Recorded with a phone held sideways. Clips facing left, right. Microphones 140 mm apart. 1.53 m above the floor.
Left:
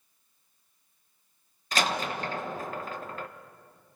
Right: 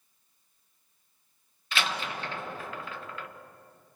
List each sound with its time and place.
1.7 s a door slam: 40° left (ahead or behind), 1.2 m